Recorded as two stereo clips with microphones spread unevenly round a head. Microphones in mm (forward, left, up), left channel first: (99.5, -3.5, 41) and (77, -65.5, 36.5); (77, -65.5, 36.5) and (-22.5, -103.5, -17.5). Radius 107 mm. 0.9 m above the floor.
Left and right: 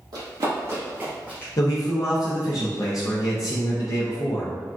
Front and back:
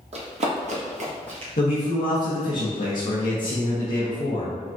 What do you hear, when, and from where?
0.1 s running footsteps: 120° right, 1.8 m; by 1.5 s 125° left, 1.1 m
1.6 s a man speaking: 55° left, 0.7 m